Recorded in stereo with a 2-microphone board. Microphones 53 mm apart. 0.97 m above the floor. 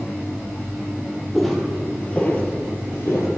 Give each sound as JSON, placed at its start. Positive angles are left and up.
{"t": 1.3, "sound": "footsteps", "side_deg": 0, "distance_m": 1.7}